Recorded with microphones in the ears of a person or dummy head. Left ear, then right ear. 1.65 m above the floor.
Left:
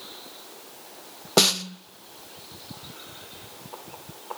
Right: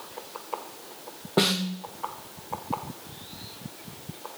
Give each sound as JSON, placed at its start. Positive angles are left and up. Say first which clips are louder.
{"t": 1.4, "sound": "a snare drum", "louder": "left 4 dB", "side_deg": 80, "distance_m": 0.8}